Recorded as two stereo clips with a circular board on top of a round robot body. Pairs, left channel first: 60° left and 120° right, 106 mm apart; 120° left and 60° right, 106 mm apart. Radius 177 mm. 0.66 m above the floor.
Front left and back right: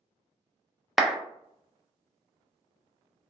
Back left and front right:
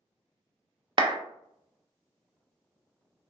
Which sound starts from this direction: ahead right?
A clap, at 1.0 s.